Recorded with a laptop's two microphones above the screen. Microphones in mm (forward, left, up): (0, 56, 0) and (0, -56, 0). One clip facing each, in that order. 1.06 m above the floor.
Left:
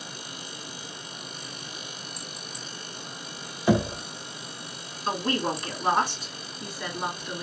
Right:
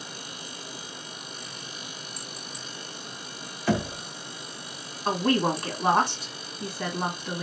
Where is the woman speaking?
55° right (ahead or behind), 3 m.